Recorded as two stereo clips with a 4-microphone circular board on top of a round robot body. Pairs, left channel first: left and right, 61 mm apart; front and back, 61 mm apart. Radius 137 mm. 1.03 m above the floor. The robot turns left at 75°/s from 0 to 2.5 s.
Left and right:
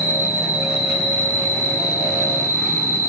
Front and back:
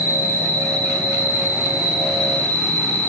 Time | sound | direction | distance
0.0 | an insect | 115° right | 2.5 m